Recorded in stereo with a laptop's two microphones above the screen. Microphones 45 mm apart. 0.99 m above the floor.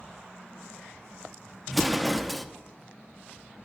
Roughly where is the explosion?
Centre.